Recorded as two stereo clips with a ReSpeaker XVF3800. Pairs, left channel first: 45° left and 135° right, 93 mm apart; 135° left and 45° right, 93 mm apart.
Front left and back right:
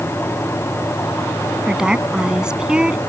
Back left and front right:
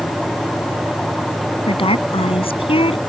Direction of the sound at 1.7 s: 140° left.